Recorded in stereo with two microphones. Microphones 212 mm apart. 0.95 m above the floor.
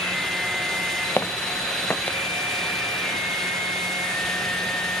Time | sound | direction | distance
1.2 | footsteps | 10° left (ahead or behind) | ?